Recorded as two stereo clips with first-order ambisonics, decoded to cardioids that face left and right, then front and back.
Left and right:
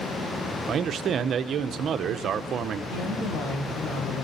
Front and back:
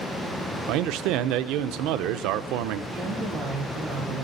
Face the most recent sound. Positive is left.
turn(degrees=115)